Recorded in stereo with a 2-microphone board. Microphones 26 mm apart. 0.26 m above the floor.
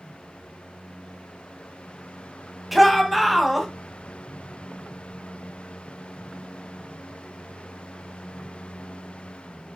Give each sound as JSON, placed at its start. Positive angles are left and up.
{"t": 2.7, "sound": "a shout", "side_deg": -5, "distance_m": 1.6}